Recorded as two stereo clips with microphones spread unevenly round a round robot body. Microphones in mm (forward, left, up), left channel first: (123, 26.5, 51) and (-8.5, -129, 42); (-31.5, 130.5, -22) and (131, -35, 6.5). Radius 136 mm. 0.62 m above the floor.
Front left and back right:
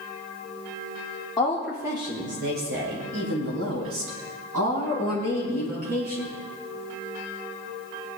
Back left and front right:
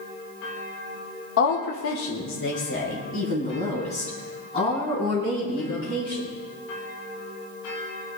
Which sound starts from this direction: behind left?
A woman speaking, at 1.4 s.